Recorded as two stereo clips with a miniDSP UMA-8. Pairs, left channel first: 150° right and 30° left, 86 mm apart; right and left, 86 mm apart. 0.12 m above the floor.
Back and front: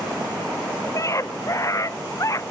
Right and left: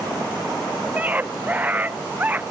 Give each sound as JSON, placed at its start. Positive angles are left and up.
{"t": 0.9, "sound": "a scream", "azimuth_deg": 160}